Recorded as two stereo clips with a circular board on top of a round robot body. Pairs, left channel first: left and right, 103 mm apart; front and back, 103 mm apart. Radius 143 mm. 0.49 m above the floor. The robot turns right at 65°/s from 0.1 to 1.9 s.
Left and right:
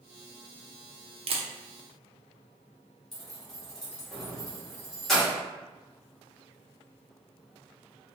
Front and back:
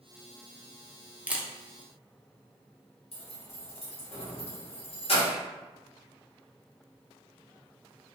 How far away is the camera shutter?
About 0.6 m.